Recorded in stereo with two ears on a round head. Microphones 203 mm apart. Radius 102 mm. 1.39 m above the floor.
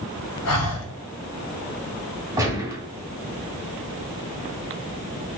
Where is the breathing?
75° left (ahead or behind), 0.6 m.